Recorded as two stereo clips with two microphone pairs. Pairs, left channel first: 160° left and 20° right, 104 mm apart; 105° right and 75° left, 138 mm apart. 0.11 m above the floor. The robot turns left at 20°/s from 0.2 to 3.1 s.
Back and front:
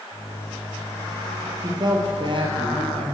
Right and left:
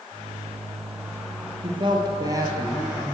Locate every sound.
1.6 s a woman speaking: 25° left, 2 m; by 3.1 s 5° right, 2 m